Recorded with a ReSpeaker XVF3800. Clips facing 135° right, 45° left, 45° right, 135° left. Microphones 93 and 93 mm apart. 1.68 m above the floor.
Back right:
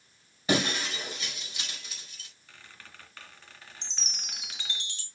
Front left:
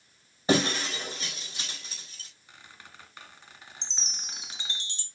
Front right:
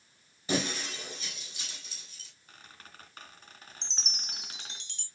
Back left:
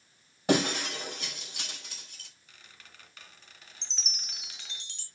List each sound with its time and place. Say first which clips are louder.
0.5 s breaking glass: front left 3 dB, back left 6 dB; 105° left, 4.5 m
2.5 s a squeak: front left 1 dB, front right 6 dB; 20° right, 2 m
3.8 s a chime: front left 1 dB, front right 2 dB; 45° left, 1.7 m